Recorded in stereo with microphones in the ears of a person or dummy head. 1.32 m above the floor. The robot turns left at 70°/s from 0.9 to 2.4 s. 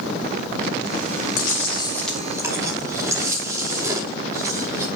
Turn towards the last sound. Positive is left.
turn(degrees=-20)